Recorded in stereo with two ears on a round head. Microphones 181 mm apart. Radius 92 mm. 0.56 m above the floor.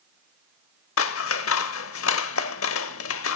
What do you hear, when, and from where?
1.0 s scissors: 70° left (ahead or behind), 0.8 m